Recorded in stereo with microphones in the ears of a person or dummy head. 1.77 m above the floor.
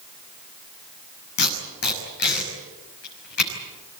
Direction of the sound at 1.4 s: 60° left (ahead or behind).